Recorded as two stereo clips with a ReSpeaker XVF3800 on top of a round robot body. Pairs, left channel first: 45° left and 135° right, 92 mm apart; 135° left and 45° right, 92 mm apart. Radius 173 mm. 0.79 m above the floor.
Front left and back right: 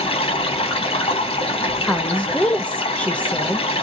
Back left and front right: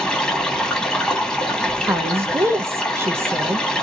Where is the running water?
55° left, 1.7 m.